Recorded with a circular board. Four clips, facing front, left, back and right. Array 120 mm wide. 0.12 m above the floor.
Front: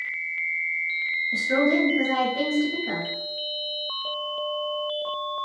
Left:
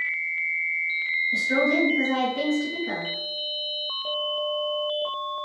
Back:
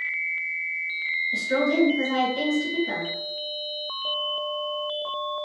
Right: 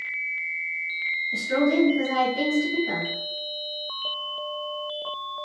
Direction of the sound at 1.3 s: 10° left.